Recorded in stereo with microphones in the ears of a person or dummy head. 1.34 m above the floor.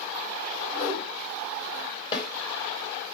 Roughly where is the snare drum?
Left.